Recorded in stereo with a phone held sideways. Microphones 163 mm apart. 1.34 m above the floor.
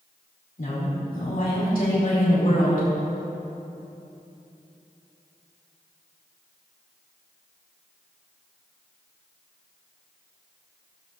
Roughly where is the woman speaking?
Left.